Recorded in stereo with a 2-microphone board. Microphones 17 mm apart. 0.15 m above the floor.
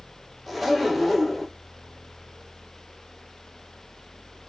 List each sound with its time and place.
0.5 s a zipper: 5° right (ahead or behind), 1.1 m